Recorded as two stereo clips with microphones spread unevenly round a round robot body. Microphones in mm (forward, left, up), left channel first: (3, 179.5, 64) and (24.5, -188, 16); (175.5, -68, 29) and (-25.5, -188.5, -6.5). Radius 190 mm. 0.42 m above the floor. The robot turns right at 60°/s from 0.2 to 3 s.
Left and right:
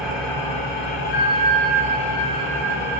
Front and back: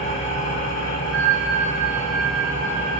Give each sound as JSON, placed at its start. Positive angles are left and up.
{"t": 0.0, "sound": "an engine running", "azimuth_deg": 0, "distance_m": 1.9}
{"t": 1.1, "sound": "a bell", "azimuth_deg": 155, "distance_m": 0.9}